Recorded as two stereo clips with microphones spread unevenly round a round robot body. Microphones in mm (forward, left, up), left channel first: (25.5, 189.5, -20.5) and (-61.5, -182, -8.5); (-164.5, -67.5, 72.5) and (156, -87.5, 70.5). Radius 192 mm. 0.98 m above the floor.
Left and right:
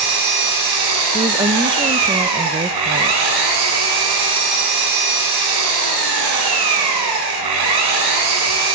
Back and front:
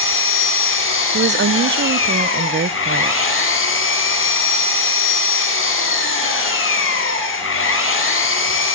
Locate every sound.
0.0 s an engine running: 130° right, 8.5 m
1.1 s a woman speaking: 30° right, 0.8 m